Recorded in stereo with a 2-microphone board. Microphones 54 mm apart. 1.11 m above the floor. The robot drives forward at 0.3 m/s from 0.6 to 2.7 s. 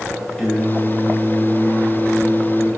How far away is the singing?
About 0.6 m.